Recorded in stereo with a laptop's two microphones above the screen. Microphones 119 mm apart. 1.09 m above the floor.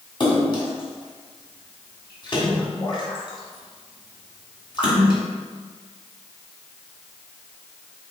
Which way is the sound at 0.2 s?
40° left (ahead or behind).